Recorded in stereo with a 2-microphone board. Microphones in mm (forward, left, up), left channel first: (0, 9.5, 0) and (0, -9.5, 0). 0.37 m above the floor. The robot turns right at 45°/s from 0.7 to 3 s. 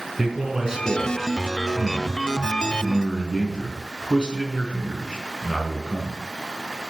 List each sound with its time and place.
0.2 s a man speaking: 40° right, 4.5 m; by 6.2 s 65° left, 4.5 m